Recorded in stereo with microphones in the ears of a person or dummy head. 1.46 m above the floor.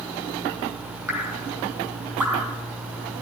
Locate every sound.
1.1 s dripping: 15° right (ahead or behind), 5.5 m